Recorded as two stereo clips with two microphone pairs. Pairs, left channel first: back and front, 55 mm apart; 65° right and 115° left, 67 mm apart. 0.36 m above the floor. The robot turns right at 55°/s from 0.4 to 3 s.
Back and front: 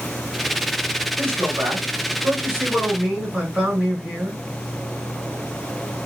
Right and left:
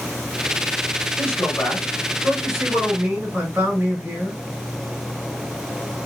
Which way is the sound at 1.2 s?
25° right.